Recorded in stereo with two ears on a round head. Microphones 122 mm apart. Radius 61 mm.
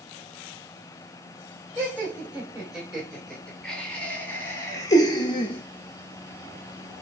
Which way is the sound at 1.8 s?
10° right (ahead or behind).